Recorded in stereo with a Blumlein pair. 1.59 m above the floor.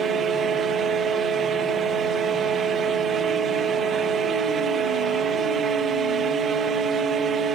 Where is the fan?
20° right.